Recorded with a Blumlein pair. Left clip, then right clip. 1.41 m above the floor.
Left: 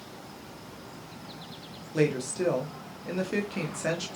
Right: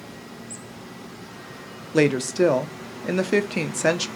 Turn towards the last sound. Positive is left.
turn(degrees=-30)